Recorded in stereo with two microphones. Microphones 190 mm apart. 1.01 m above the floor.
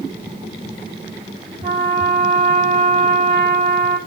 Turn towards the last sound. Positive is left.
turn(degrees=-45)  # may be behind; listen again after turning